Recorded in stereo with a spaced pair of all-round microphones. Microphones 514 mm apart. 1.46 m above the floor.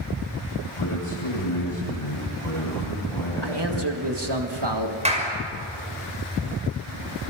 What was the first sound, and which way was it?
A man speaking, 80° left.